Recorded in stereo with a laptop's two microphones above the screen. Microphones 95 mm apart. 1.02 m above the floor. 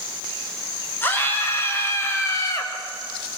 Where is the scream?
25° left (ahead or behind), 6 m; by 2.7 s 35° left (ahead or behind), 4.5 m.